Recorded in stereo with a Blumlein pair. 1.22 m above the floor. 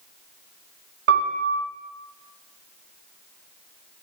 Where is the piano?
45° right, 1.3 m.